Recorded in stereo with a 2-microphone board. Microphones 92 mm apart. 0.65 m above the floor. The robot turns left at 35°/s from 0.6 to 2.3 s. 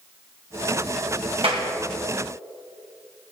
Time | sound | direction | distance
1.4 | a clap | 80° right | 3 m